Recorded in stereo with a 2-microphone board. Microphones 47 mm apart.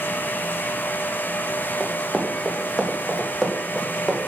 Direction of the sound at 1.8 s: 5° left (ahead or behind).